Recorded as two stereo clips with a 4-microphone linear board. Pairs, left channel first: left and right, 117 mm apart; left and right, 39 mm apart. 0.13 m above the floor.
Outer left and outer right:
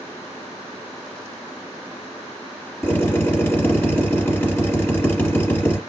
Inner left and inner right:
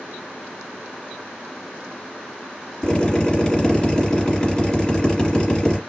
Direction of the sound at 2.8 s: 20° left (ahead or behind).